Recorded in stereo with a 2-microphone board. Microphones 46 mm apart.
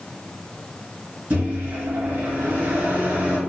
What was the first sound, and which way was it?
A microwave, 40° right (ahead or behind).